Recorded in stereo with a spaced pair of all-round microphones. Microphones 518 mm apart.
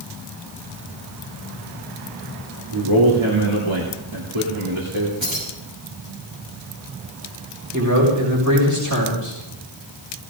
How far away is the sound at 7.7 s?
About 6 m.